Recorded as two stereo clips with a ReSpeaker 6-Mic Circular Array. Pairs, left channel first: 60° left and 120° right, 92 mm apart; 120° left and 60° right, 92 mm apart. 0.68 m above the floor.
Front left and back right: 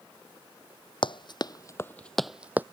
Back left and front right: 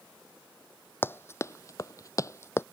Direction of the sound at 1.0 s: 60° left.